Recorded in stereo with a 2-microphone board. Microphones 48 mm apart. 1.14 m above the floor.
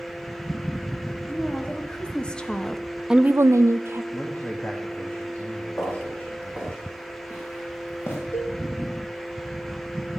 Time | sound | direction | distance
1.3 | a woman speaking | 25° left (ahead or behind) | 3 m
4.1 | a man speaking | 30° left (ahead or behind) | 1.8 m
5.8 | footsteps | 40° left (ahead or behind) | 7.5 m
8.3 | a cowbell | 80° left | 1.1 m